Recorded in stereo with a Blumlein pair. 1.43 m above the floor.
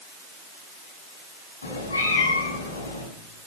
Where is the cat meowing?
70° left, 4.5 m.